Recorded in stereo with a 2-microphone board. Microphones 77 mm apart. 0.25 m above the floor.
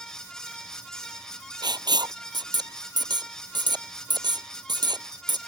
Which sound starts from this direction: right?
Writing, at 1.6 s.